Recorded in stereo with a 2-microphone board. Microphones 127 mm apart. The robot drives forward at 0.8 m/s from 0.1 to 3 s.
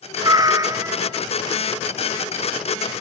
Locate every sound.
0.2 s a cat meowing: 35° right (ahead or behind), 0.7 m; by 1.2 s 20° right (ahead or behind), 1.1 m